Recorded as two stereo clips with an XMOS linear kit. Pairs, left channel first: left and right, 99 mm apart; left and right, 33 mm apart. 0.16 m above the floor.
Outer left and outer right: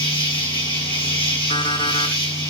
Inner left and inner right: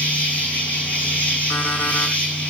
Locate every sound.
0.0 s an insect: 70° left (ahead or behind), 3.5 m
1.5 s an alarm clock: 60° left (ahead or behind), 4.5 m